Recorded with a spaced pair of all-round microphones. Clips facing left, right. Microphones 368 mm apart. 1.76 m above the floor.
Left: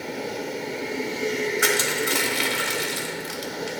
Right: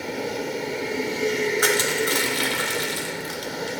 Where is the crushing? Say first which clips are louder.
Right 2 dB; 40° left (ahead or behind), 0.8 m.